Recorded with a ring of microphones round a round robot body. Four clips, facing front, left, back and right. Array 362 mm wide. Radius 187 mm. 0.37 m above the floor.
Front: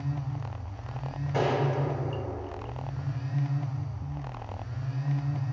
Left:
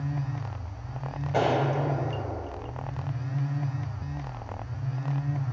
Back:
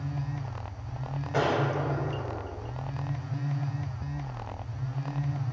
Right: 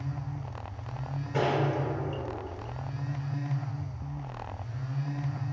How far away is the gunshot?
About 2.5 m.